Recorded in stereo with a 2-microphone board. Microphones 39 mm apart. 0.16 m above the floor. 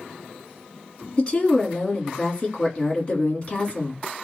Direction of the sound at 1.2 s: 30° left (ahead or behind).